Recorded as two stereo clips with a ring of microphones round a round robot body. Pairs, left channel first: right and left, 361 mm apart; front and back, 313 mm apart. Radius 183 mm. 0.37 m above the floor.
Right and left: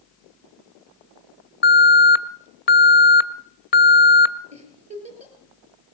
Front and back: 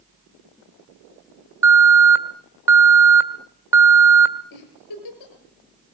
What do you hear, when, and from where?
1.6 s an alarm: 110° right, 1.3 m
4.5 s a giggle: 15° left, 5 m